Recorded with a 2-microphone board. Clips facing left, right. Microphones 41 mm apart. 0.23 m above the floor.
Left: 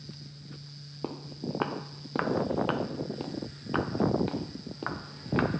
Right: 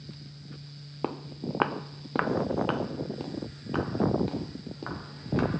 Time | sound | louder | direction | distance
1.0 | footsteps | right 3 dB | 55° right (ahead or behind) | 0.9 m